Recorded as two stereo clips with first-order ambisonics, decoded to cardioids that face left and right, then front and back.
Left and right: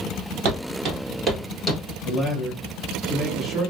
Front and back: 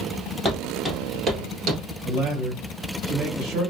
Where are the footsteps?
85° right, 1.6 m; by 1.8 s 165° left, 1.3 m.